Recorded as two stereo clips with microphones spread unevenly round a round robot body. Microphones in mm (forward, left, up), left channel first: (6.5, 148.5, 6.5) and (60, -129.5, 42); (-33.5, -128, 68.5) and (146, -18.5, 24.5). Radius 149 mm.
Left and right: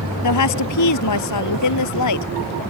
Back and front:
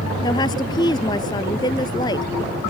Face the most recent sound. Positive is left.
turn(degrees=135)